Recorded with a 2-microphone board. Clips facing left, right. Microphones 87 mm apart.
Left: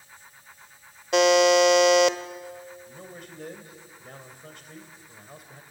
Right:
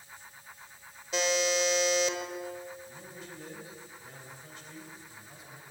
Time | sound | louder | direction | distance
1.1 | a buzzer | left 11 dB | 70° left (ahead or behind) | 0.8 m
2.9 | a man speaking | left 3 dB | 60° left (ahead or behind) | 3 m